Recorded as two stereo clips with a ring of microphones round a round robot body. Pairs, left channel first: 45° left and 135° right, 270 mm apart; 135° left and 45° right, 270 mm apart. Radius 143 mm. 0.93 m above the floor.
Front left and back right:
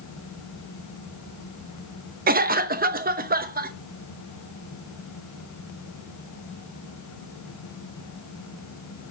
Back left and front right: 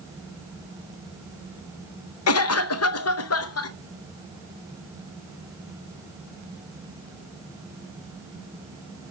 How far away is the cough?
About 0.8 m.